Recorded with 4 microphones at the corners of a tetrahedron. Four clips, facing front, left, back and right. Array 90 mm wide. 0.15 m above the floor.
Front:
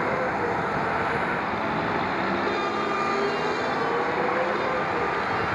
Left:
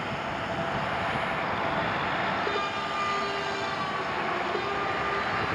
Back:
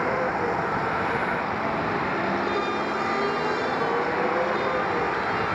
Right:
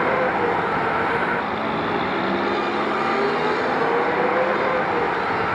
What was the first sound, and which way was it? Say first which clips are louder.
A vehicle: right 12 dB, even; 100° right.